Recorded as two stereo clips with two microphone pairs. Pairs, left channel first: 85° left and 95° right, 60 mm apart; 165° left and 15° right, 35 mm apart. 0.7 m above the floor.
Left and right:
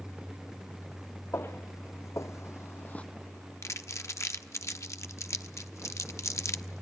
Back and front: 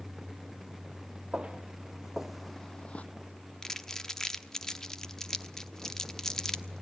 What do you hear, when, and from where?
1.3 s footsteps: 50° left, 2.5 m; by 3.1 s 150° left, 1.0 m
3.6 s crumpling: 100° left, 1.0 m